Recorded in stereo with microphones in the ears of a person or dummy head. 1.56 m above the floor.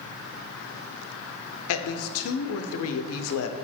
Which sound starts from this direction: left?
A woman speaking, at 1.7 s.